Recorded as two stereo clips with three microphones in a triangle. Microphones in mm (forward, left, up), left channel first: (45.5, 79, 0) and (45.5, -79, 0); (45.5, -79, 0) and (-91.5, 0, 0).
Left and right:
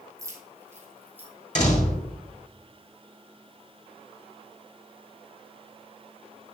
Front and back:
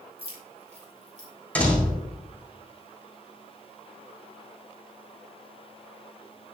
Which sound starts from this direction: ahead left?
A door slam, at 1.6 s.